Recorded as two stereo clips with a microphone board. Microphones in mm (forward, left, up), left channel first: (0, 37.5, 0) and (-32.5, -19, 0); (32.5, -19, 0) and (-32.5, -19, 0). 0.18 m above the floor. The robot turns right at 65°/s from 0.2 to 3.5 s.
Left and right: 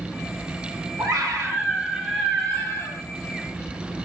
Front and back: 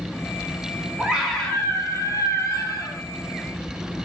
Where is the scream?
105° right, 5 m; by 3.0 s 25° left, 5 m.